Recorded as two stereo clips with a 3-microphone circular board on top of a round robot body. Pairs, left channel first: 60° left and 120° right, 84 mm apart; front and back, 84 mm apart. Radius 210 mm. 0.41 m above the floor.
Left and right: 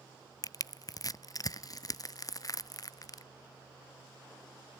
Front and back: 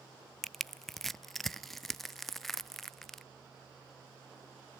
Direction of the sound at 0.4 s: 85° left.